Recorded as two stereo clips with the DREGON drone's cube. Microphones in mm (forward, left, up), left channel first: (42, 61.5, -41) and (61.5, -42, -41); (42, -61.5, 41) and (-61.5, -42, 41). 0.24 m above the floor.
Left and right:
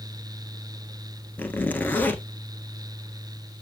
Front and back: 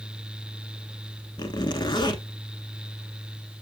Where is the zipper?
30° left, 1.1 m.